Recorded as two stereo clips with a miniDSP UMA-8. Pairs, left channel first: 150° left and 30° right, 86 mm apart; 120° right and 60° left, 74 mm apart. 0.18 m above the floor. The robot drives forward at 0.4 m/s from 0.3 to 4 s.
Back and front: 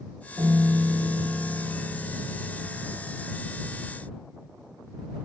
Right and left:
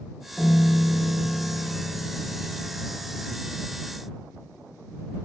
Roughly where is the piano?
Ahead right.